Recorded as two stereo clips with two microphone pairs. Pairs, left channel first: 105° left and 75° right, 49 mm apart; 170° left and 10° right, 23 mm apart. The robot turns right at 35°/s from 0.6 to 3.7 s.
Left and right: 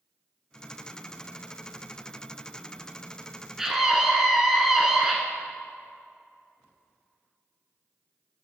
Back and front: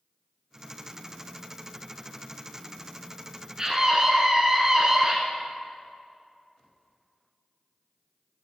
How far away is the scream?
About 1.1 m.